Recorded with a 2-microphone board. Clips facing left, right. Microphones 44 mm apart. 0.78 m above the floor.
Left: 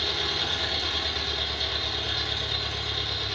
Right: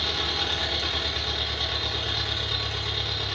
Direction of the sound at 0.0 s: 50° right (ahead or behind).